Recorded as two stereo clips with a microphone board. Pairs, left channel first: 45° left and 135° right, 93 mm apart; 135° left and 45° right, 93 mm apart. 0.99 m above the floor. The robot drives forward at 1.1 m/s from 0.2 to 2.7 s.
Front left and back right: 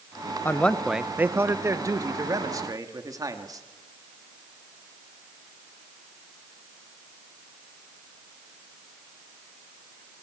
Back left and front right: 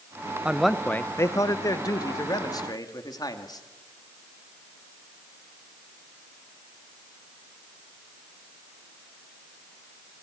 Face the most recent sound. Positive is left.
turn(degrees=175)